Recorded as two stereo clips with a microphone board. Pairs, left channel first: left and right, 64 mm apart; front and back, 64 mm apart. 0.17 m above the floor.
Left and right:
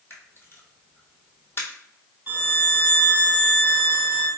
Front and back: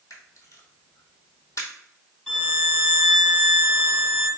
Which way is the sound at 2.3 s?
75° right.